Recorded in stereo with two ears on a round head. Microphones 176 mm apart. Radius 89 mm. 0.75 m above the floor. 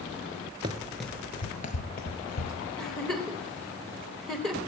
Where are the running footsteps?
25° right (ahead or behind), 0.8 m; by 2.5 s 60° left (ahead or behind), 1.5 m.